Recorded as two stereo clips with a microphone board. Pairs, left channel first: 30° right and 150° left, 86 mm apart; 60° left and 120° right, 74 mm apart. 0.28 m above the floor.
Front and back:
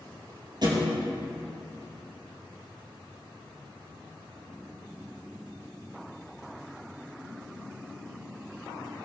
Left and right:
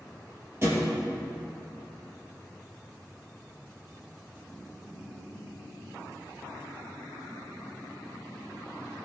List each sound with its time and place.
0.6 s a thud: 175° right, 3 m